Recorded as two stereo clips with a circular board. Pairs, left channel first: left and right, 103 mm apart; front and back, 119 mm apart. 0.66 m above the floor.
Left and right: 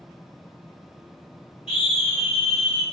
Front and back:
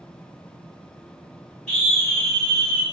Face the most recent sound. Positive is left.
turn(degrees=80)